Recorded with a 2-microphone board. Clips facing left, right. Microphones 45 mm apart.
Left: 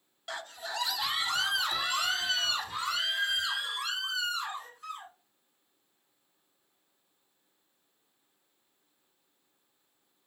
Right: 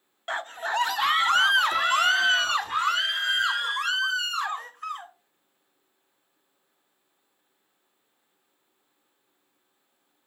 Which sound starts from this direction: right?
A scream, at 0.3 s.